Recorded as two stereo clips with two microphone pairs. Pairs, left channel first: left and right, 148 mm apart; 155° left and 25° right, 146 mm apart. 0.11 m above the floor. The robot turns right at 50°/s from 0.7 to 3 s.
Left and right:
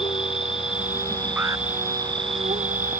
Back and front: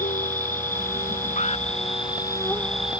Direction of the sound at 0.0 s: 140° left.